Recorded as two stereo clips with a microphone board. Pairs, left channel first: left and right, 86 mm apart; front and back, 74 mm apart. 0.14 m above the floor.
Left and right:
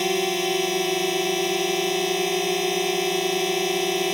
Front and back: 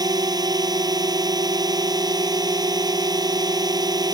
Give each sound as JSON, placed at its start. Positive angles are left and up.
{"t": 0.0, "sound": "a drone", "azimuth_deg": 180}